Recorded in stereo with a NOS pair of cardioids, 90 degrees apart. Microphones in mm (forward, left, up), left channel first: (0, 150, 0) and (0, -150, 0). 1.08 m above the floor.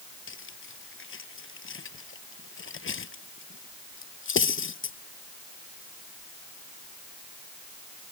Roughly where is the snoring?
No snoring in this recording.